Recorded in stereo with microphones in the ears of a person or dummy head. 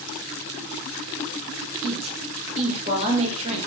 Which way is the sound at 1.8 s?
35° right (ahead or behind).